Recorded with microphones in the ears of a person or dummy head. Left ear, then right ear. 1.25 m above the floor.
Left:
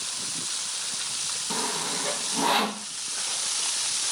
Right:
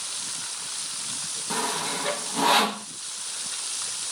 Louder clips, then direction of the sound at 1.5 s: Right 3 dB; 15° right (ahead or behind).